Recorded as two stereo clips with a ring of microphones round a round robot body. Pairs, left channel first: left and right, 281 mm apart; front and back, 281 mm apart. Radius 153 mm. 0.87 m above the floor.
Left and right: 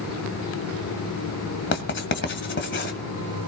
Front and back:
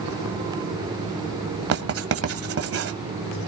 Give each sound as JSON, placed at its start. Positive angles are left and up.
{"t": 1.7, "sound": "writing", "azimuth_deg": 140, "distance_m": 1.8}